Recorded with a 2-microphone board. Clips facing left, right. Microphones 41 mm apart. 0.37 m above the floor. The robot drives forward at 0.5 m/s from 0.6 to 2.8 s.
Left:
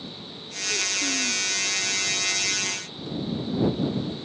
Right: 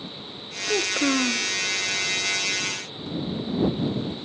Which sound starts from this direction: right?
A child speaking, at 0.7 s.